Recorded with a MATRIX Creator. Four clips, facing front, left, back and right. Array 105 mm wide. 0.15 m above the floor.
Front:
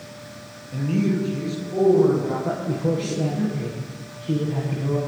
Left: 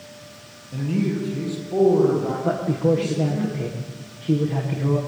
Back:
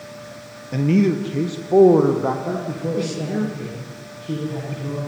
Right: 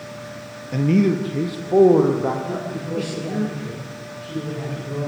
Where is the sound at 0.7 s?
135° right, 3 m; by 3.4 s 160° right, 7 m.